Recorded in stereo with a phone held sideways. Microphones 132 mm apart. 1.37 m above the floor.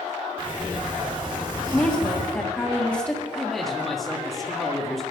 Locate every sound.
0.4 s a sliding door: 35° right (ahead or behind), 2.5 m
1.7 s a woman speaking: 10° left (ahead or behind), 1.5 m
3.3 s a man speaking: 5° left (ahead or behind), 1.5 m